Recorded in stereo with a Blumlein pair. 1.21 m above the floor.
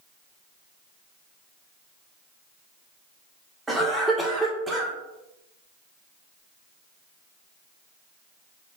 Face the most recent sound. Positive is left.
turn(degrees=-10)